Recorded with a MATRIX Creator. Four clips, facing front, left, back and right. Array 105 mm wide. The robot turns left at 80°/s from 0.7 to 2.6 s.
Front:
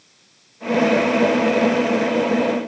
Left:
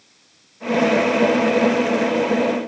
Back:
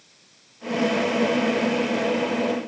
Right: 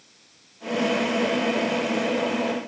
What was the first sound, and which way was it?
Only background noise.